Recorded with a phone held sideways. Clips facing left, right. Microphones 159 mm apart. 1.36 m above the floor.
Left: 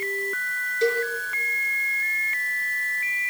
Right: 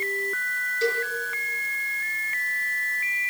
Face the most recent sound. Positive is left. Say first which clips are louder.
# left 4 dB
turn(degrees=20)  # may be behind; listen again after turning